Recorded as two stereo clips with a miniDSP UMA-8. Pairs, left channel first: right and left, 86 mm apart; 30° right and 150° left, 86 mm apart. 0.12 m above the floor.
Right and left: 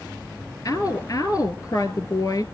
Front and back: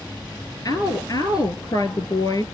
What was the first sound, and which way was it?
A woman speaking, 55° right.